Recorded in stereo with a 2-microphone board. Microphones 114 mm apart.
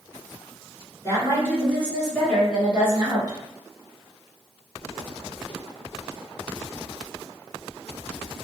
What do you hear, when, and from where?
1.0 s a woman speaking: 30° left (ahead or behind), 2.0 m; by 3.4 s 35° right (ahead or behind), 1.8 m